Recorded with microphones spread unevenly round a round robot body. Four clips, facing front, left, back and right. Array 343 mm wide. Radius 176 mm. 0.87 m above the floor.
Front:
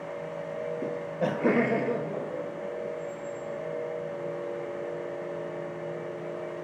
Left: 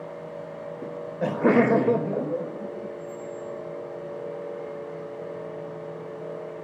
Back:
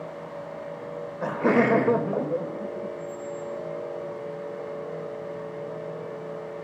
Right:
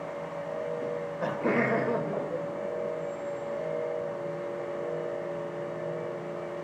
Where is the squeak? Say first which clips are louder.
Right 2 dB, back 2 dB; 100° left, 1.8 m.